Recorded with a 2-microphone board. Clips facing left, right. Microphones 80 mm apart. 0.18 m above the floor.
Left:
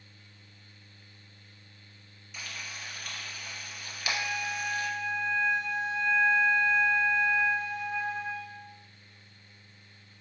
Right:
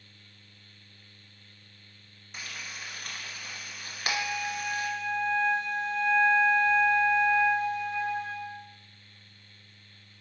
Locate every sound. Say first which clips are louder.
2.3 s frying: right 1 dB; 45° right (ahead or behind), 1.1 m
4.0 s a flute: right 1 dB; 35° left (ahead or behind), 1.9 m